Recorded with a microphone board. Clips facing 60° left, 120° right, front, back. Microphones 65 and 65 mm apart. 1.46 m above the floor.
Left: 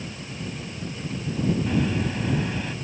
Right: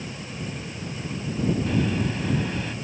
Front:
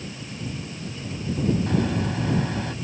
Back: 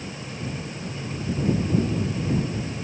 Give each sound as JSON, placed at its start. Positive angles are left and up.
{"t": 1.7, "sound": "a microwave", "azimuth_deg": -25}